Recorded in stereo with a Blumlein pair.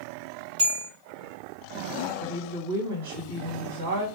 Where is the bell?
50° right, 1.7 m.